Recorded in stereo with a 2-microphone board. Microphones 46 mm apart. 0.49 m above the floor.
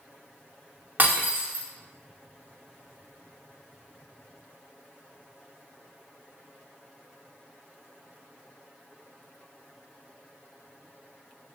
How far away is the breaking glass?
About 0.7 m.